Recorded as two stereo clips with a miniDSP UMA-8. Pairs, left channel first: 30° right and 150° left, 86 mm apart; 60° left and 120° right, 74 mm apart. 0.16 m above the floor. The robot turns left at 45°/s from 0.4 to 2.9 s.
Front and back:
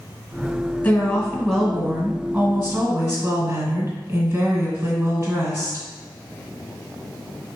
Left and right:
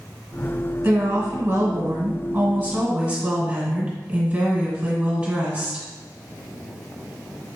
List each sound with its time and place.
0.8 s a woman speaking: 80° right, 1.6 m; by 5.8 s 170° right, 1.6 m